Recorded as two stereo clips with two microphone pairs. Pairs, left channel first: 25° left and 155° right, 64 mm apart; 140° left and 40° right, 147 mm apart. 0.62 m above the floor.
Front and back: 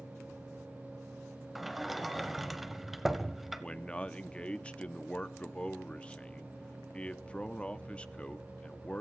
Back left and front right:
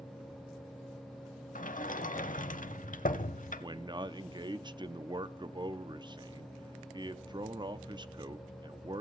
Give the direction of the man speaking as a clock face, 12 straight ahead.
1 o'clock.